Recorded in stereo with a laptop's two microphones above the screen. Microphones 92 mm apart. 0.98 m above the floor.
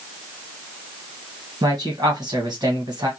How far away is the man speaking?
About 1.2 m.